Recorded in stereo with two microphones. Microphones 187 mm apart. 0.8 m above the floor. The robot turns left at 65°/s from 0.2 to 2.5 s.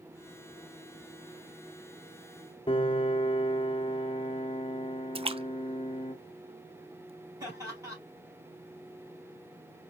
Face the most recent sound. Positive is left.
turn(degrees=-15)  # may be behind; listen again after turning